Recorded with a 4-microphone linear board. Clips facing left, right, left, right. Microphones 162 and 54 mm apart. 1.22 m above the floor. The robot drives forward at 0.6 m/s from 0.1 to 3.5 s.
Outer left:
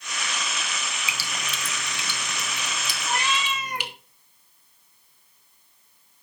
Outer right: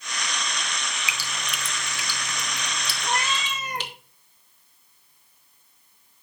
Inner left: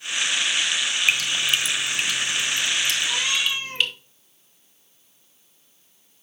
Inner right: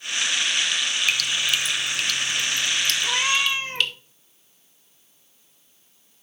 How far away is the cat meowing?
About 1.9 m.